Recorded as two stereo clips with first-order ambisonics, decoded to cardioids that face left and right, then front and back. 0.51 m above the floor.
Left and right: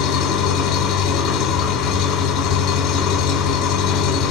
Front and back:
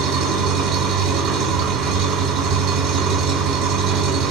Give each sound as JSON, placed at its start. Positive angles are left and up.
{"t": 0.0, "sound": "an engine running", "azimuth_deg": 145, "distance_m": 3.0}